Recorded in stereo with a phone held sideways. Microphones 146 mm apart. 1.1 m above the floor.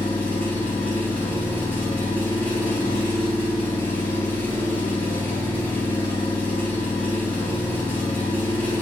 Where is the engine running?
10° left (ahead or behind), 0.7 m.